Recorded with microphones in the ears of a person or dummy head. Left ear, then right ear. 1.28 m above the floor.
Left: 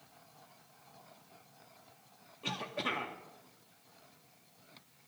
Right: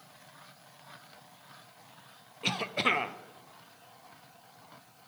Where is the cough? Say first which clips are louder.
Right 8 dB; 20° right (ahead or behind), 0.5 m.